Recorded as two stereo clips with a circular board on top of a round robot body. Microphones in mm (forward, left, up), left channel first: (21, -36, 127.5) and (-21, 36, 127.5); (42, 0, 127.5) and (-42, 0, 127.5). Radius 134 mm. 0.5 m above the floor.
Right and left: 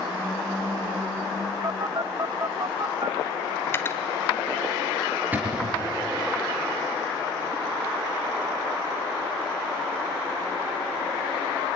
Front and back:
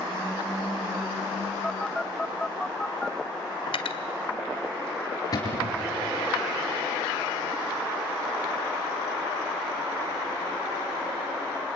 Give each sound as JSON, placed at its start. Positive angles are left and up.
{"t": 1.6, "sound": "a phone buzzing", "azimuth_deg": 85, "distance_m": 1.0}
{"t": 3.7, "sound": "cutlery clinking", "azimuth_deg": 5, "distance_m": 1.5}
{"t": 5.3, "sound": "a cupboard door", "azimuth_deg": 50, "distance_m": 3.5}